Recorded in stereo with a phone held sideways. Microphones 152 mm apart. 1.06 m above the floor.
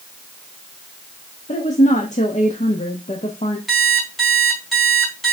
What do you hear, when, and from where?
1.5 s a woman speaking: 45° left (ahead or behind), 1.2 m
3.7 s an alarm clock: centre (ahead or behind), 4 m